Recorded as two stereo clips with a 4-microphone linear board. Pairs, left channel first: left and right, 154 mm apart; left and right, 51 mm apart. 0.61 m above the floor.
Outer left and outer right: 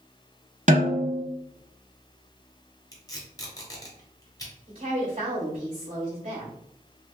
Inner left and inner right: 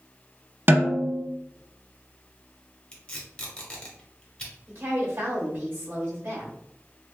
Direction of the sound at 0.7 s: 50° right (ahead or behind).